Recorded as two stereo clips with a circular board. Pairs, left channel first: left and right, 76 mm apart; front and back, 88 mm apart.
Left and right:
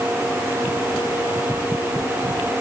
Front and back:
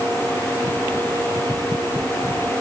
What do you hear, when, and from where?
Only background noise.